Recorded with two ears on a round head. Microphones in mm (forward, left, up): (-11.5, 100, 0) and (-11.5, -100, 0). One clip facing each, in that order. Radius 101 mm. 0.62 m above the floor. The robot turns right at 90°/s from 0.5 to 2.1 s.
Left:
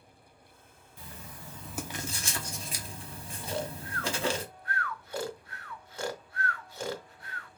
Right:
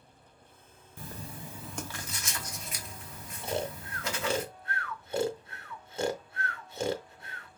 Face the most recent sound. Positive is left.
turn(degrees=-20)  # may be behind; listen again after turning